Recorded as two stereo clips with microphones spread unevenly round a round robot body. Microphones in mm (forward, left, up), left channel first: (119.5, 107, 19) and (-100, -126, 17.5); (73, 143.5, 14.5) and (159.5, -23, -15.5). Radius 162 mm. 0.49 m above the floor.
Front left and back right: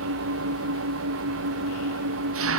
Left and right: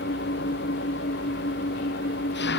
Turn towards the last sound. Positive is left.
turn(degrees=175)